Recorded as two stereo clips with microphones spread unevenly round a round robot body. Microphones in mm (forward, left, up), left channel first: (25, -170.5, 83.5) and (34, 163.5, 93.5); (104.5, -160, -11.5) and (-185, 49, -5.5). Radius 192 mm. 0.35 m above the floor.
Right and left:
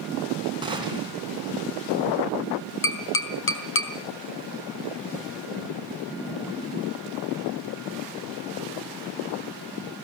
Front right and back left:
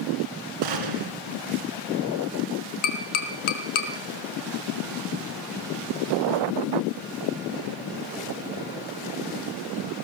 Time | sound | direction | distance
0.6 | a gunshot | 165° left | 2.5 m
2.8 | tapping | 40° right | 3.5 m